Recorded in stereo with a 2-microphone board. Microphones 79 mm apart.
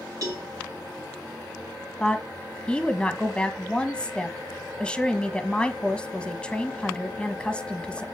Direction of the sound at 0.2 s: 45° right (ahead or behind).